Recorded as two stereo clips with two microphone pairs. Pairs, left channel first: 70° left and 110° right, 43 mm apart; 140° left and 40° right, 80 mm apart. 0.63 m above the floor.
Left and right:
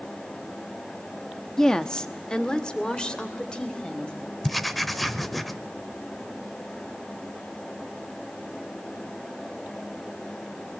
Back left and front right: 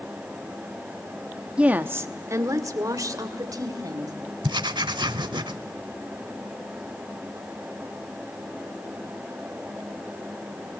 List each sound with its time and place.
1.6 s a woman speaking: 15° left, 0.9 m; by 4.1 s 5° left, 4 m
4.4 s writing: 15° right, 0.9 m